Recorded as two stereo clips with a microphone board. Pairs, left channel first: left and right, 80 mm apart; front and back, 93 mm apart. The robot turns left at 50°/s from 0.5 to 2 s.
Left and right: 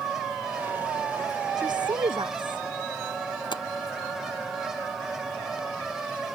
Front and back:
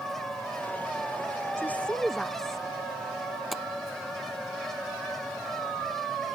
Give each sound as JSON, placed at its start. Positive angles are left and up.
{"t": 1.6, "sound": "a woman speaking", "azimuth_deg": -65}
{"t": 3.5, "sound": "tapping", "azimuth_deg": 90}